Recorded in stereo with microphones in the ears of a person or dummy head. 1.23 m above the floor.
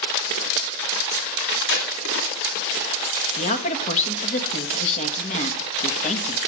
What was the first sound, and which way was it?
Tape being pulled, 65° left (ahead or behind).